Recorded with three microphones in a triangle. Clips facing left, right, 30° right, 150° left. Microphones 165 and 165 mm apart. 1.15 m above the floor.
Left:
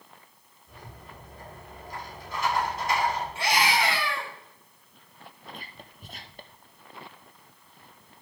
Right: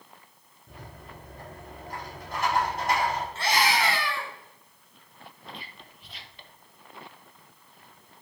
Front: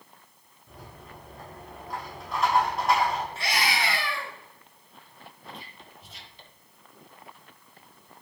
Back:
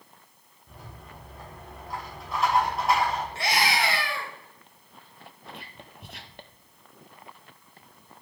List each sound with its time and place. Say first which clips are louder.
0.7 s a rattle: right 1 dB, front 1 dB; 120° right, 5 m
3.4 s a scream: even, back 3 dB; 165° left, 4 m
5.5 s whispering: left 1 dB, back 1 dB; 130° left, 1.0 m